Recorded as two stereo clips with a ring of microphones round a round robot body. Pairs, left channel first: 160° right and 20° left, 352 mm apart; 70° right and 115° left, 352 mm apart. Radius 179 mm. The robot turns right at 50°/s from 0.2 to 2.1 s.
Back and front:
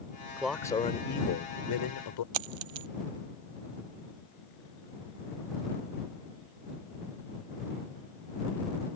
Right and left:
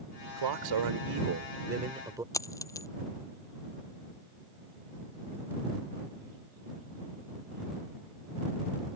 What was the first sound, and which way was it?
A man speaking, 105° left.